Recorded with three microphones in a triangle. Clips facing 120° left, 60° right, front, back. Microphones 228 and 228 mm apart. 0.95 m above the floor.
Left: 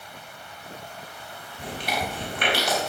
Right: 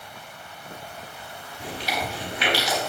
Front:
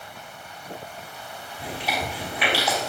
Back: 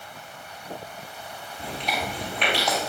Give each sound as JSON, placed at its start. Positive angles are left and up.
{"t": 1.6, "sound": "chewing", "azimuth_deg": 85, "distance_m": 4.0}